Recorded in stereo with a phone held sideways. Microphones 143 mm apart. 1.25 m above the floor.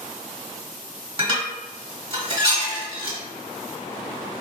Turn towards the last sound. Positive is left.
turn(degrees=-35)  # may be behind; listen again after turning